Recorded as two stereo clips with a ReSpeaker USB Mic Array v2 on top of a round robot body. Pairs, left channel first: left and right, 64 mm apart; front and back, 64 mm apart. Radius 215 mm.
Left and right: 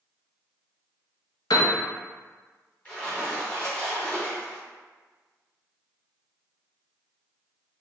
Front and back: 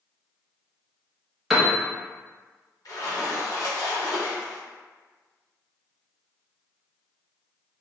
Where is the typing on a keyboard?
No typing on a keyboard in this recording.